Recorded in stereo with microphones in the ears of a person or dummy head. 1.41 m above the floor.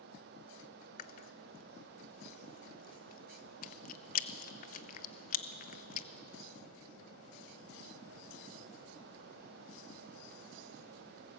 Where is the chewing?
45° left (ahead or behind), 0.7 m.